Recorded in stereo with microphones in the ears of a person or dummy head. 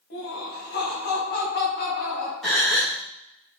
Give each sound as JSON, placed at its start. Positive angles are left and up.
{"t": 0.1, "sound": "laughter", "side_deg": 50, "distance_m": 1.9}
{"t": 2.4, "sound": "a gasp", "side_deg": 0, "distance_m": 1.2}